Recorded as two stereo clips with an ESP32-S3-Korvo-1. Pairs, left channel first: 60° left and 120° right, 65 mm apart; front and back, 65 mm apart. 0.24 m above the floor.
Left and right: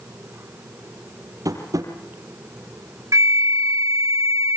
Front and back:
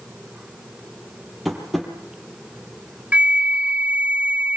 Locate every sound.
1.4 s tapping: 90° right, 5 m
3.1 s a flute: 115° right, 0.9 m